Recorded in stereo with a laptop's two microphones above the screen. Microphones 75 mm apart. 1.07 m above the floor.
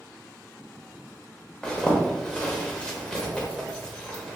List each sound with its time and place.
1.6 s a zipper: 10° left (ahead or behind), 0.7 m